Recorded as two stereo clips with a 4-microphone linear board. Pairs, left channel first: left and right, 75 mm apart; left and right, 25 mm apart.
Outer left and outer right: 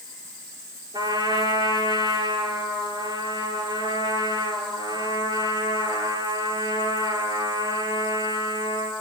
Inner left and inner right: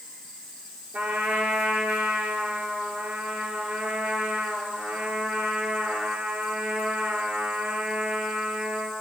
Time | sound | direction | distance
0.9 | a trumpet | 75° right (ahead or behind) | 7 m